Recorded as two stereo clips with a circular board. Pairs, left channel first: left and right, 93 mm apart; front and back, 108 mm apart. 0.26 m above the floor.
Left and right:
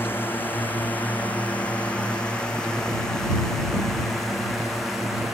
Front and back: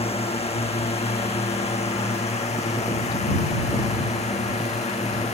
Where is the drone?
20° left; by 5.3 s 5° right.